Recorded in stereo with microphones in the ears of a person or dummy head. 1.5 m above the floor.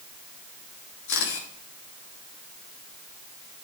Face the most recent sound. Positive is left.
turn(degrees=60)  # may be behind; listen again after turning